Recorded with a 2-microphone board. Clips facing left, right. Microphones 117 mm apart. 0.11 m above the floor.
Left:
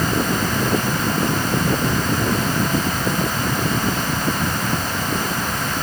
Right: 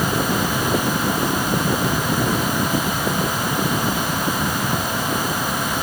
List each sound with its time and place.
Only background noise.